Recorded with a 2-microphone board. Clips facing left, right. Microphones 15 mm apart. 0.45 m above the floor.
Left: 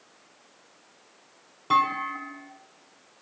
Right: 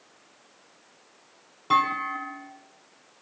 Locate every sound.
1.7 s a clunk: 5° right (ahead or behind), 1.1 m